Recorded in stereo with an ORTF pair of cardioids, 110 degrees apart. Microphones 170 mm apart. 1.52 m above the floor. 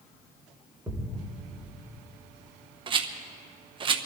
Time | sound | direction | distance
0.9 | a thud | 5° right | 3 m
2.9 | a rattle | 30° right | 1.1 m